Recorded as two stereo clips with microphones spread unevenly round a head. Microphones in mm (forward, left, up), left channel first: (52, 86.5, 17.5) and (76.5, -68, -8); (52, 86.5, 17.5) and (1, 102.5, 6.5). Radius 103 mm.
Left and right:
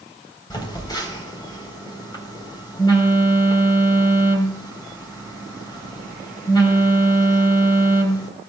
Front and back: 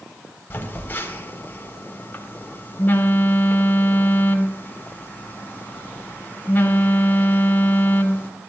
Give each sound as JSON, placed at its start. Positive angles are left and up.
{"t": 0.5, "sound": "a phone buzzing", "azimuth_deg": 35, "distance_m": 4.5}